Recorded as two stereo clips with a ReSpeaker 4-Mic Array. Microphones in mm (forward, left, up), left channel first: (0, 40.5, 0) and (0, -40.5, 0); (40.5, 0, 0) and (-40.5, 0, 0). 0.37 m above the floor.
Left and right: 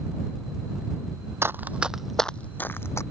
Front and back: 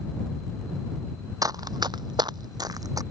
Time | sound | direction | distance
1.4 | running footsteps | 145° right | ?